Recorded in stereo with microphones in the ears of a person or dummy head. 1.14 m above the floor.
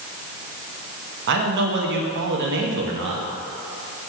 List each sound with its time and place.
1.3 s a man speaking: 60° right (ahead or behind), 1.2 m